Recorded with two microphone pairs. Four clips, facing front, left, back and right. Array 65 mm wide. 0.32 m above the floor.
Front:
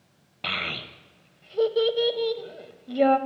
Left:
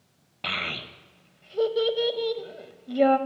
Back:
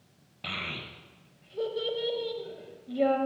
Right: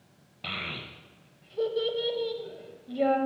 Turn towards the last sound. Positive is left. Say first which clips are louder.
# left 5 dB, front 6 dB
turn(degrees=45)